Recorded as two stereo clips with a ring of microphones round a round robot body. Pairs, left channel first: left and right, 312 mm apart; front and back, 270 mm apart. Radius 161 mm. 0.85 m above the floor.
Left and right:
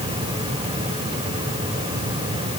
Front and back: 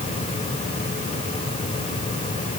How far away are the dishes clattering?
No dishes clattering in this recording.